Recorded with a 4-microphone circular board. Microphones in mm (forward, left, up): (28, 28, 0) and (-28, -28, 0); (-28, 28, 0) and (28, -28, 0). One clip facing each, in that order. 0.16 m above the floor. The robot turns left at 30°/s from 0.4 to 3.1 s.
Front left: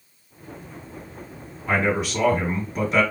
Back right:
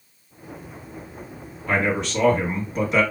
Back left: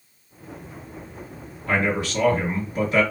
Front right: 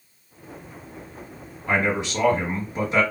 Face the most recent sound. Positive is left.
turn(degrees=-55)